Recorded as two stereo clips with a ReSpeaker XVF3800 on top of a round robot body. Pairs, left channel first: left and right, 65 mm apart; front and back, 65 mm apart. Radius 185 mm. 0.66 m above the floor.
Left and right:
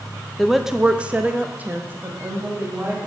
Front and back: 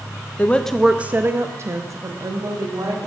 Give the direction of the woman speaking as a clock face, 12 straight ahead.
12 o'clock.